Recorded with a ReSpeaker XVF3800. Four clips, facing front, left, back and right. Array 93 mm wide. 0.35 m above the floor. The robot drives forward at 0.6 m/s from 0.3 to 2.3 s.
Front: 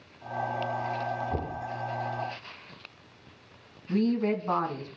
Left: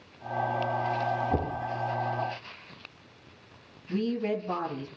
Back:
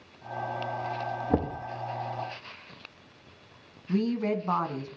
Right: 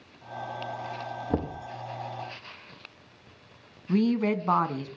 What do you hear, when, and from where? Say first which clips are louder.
1.3 s knocking: left 1 dB, back 5 dB; 150° right, 4.5 m
3.9 s a woman speaking: right 4 dB, front 1 dB; 95° right, 2.5 m